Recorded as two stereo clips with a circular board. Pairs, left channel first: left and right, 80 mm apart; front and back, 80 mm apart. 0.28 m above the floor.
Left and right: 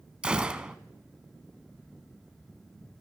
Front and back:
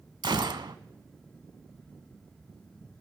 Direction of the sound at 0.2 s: 165° right.